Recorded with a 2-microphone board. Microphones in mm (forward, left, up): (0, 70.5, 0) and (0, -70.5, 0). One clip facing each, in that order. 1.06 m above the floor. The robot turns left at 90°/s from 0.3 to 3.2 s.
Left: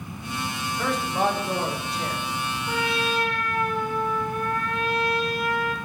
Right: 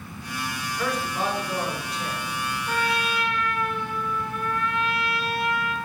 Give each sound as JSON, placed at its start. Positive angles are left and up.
{"t": 0.8, "sound": "a man speaking", "azimuth_deg": 170, "distance_m": 1.6}
{"t": 2.7, "sound": "a trumpet", "azimuth_deg": 170, "distance_m": 0.9}